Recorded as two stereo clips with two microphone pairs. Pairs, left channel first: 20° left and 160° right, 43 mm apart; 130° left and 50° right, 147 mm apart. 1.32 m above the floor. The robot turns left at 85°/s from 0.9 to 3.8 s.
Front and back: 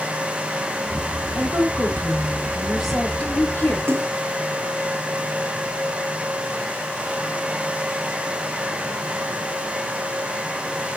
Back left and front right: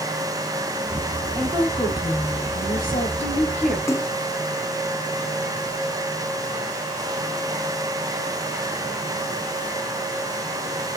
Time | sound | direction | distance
1.4 | a woman speaking | 120° right | 4.5 m
3.9 | a splash | 160° right | 0.8 m